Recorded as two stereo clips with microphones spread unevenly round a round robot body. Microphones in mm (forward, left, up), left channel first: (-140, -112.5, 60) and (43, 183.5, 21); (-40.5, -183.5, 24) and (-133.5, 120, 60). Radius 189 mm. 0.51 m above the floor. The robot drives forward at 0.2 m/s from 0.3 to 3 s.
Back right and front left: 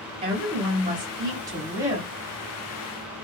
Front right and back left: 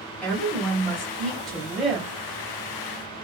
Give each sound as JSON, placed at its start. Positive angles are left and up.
{"t": 0.2, "sound": "a woman speaking", "azimuth_deg": 0, "distance_m": 1.4}